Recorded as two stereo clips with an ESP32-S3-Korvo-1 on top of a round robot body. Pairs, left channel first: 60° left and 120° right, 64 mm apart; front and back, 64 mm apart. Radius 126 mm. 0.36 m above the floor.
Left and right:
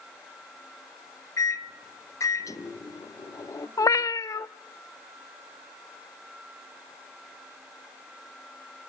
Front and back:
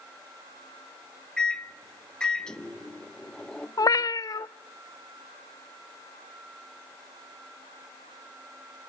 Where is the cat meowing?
25° left, 0.6 m.